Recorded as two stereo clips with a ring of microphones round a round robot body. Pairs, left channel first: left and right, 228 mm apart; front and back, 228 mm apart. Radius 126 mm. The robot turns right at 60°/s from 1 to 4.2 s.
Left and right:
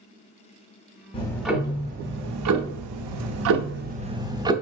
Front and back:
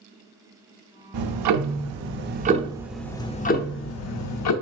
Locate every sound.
1.1 s ticking: 160° left, 0.6 m; by 4.5 s 15° right, 0.6 m